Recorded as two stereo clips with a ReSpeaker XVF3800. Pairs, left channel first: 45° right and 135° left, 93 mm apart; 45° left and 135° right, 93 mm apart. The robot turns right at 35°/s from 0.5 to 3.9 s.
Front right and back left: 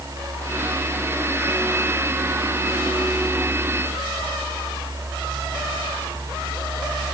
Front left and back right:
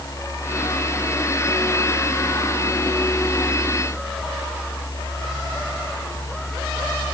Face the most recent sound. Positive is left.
No sound to turn to.